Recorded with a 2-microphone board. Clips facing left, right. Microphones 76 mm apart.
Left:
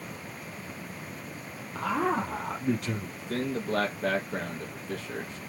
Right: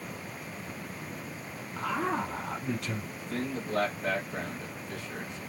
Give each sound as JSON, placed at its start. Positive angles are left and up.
{"t": 1.8, "sound": "a man speaking", "side_deg": 60, "distance_m": 3.5}
{"t": 3.2, "sound": "a man speaking", "side_deg": 70, "distance_m": 4.0}